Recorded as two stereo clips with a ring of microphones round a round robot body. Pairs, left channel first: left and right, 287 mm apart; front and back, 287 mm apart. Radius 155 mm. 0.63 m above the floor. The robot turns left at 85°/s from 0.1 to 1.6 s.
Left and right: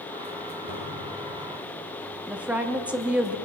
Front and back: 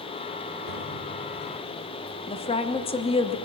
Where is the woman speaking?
15° right, 0.8 m.